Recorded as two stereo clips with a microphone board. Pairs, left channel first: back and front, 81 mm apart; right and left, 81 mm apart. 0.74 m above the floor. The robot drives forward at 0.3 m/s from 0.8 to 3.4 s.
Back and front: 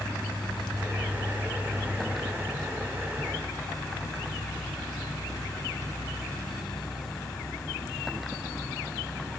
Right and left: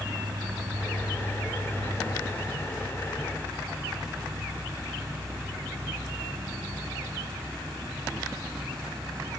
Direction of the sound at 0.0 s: 105° left.